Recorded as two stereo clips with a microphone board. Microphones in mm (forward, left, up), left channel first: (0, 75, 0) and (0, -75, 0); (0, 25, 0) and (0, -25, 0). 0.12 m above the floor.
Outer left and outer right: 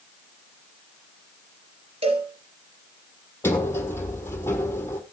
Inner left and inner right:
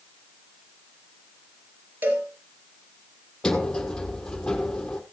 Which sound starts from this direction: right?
A cowbell, at 2.0 s.